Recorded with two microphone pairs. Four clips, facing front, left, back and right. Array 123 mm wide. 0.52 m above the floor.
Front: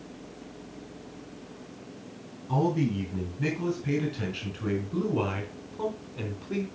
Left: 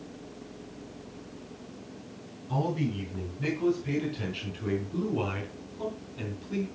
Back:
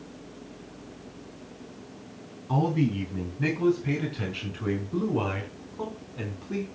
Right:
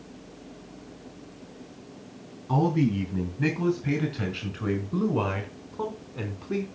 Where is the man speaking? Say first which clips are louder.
Right 6 dB, back 1 dB; 110° right, 6 m; by 6.7 s 95° right, 4 m.